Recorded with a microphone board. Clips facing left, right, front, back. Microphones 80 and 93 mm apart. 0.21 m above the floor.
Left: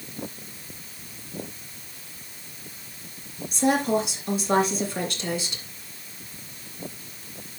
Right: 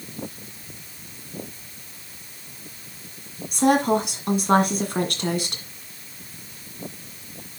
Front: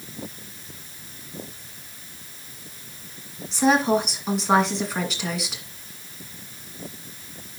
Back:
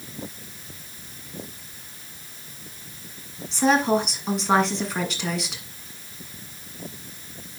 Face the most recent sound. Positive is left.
turn(degrees=-90)